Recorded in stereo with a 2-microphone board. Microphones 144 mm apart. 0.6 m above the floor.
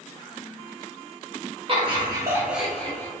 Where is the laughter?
40° right (ahead or behind), 1.5 m; by 3.1 s 20° left (ahead or behind), 1.3 m.